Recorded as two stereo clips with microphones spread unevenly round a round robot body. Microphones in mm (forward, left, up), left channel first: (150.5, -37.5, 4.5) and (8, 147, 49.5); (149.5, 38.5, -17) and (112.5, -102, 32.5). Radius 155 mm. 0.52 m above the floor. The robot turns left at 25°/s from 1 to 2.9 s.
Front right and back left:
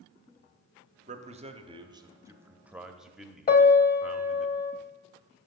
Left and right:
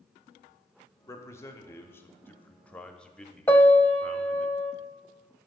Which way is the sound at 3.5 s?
Straight ahead.